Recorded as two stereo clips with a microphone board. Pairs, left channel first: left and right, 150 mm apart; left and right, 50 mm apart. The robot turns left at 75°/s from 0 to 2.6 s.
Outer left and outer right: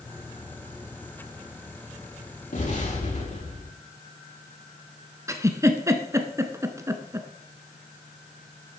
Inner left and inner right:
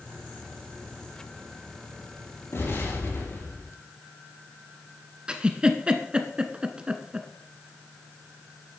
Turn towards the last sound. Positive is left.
turn(degrees=-20)  # may be behind; listen again after turning